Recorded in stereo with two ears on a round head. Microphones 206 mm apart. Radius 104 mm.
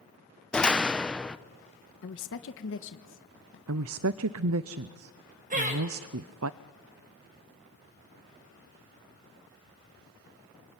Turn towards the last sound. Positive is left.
turn(degrees=-40)  # may be behind; listen again after turning